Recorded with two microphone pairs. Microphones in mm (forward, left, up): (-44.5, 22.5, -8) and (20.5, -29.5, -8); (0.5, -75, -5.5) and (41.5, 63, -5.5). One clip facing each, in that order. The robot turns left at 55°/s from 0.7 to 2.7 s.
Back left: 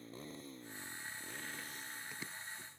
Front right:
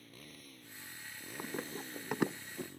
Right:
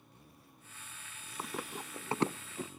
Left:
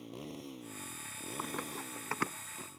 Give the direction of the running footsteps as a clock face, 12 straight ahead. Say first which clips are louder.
Front right 7 dB, even; 1 o'clock.